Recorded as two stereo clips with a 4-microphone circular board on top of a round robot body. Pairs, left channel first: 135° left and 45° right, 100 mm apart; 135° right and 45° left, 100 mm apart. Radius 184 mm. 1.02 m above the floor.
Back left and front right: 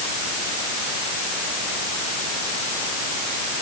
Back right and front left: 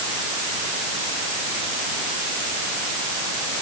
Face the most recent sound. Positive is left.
No sound to turn to.